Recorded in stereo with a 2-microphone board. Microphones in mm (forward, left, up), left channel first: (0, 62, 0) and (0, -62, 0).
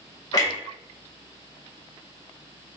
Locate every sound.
0.3 s a clunk: 30° left (ahead or behind), 1.0 m